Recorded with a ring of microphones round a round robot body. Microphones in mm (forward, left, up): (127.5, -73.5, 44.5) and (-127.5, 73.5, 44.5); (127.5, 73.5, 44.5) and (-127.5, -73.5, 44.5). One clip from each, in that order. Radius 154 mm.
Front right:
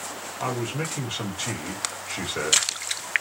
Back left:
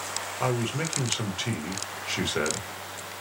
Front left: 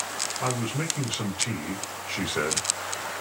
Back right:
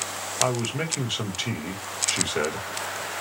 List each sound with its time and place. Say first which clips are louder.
0.4 s a man speaking: even, back right 7 dB; 175° right, 1.6 m